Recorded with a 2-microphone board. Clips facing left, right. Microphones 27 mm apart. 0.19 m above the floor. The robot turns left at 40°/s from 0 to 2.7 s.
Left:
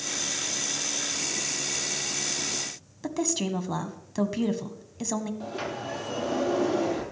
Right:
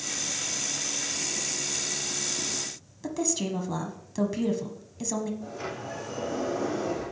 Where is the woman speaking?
15° left (ahead or behind), 1.2 m.